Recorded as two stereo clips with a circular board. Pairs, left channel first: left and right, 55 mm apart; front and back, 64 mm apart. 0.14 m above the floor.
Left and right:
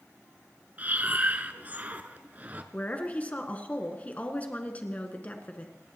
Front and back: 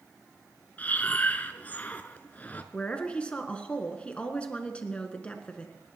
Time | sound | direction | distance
0.8 | breathing | 50° right | 0.8 m
2.7 | a woman speaking | 55° left | 1.5 m